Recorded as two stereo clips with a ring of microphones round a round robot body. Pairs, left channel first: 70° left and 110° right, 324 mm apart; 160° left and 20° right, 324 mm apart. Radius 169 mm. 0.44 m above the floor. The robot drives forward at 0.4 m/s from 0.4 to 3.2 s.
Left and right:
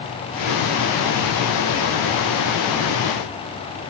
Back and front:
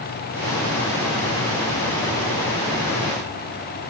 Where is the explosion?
No explosion in this recording.